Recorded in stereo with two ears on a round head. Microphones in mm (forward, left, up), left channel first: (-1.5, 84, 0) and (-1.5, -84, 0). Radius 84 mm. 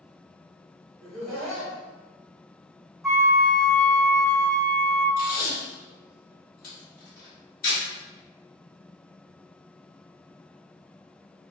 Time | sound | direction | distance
1.0 | laughter | centre (ahead or behind) | 1.2 m
3.0 | a flute | centre (ahead or behind) | 0.7 m
5.2 | tape being pulled | 50° left (ahead or behind) | 2.0 m